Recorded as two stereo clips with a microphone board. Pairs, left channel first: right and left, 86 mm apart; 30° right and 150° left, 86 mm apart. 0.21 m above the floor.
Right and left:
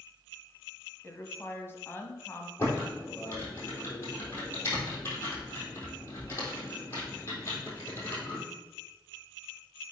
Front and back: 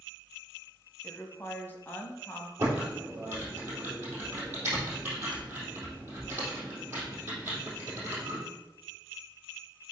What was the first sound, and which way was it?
A woman speaking, 65° right.